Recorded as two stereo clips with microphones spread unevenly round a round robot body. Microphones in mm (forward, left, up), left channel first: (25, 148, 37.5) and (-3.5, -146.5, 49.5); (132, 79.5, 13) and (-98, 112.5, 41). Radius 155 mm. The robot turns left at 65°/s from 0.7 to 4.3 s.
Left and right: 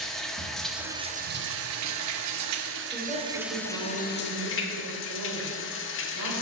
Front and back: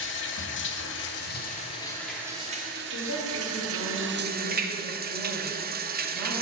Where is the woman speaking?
5° right, 3 m; by 6.3 s 95° right, 3 m.